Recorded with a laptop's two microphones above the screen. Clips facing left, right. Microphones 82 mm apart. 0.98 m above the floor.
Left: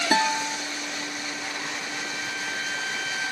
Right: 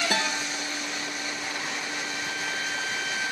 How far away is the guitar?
About 1.7 m.